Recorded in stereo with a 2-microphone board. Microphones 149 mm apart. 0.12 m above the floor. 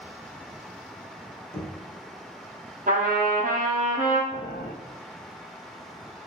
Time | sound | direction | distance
1.5 | knocking | 10° left (ahead or behind) | 1.8 m
2.9 | a trumpet | 75° right (ahead or behind) | 1.0 m
4.3 | boiling | 80° left | 0.6 m